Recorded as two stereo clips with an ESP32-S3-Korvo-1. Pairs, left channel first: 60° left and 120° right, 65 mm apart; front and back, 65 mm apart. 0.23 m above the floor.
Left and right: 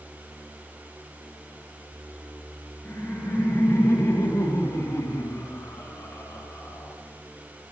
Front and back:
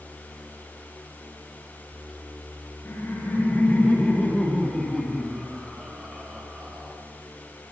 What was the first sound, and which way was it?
Laughter, 10° left.